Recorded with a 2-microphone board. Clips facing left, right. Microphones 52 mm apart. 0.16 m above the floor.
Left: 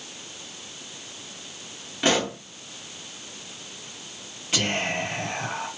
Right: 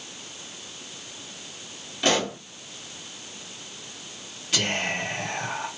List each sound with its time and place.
2.0 s a pop: 25° left (ahead or behind), 1.1 m
4.5 s whispering: 30° left (ahead or behind), 1.5 m